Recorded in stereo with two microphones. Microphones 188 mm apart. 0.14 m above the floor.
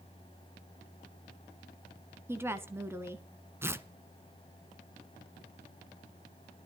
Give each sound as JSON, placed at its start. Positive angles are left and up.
{"t": 2.3, "sound": "a woman speaking", "side_deg": -15, "distance_m": 1.1}
{"t": 3.6, "sound": "tearing paper", "side_deg": -10, "distance_m": 0.7}